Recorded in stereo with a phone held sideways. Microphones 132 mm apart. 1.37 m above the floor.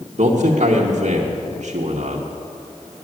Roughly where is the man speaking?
Right.